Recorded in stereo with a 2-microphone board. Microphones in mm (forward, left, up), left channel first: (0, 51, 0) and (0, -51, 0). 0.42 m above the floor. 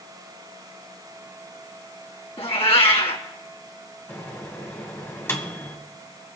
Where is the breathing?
No breathing in this recording.